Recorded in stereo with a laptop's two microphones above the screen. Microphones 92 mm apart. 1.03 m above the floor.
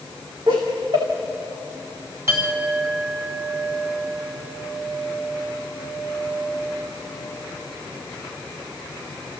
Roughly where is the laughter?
Right.